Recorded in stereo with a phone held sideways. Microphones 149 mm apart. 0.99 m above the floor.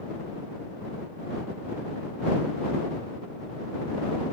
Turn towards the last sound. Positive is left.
No sound to turn to.